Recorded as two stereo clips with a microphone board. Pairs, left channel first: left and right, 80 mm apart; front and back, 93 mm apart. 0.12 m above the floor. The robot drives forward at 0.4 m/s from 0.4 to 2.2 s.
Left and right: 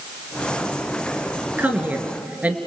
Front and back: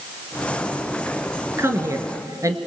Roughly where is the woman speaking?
Behind right.